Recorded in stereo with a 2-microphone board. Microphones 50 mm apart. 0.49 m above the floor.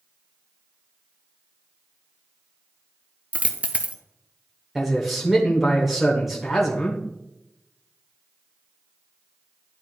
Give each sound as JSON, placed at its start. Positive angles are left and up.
{"t": 3.3, "sound": "a dropped coin", "side_deg": -25, "distance_m": 0.5}
{"t": 4.8, "sound": "a man speaking", "side_deg": -5, "distance_m": 1.2}